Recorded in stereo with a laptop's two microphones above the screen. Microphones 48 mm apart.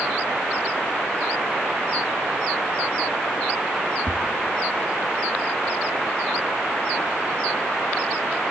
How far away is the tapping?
About 3 m.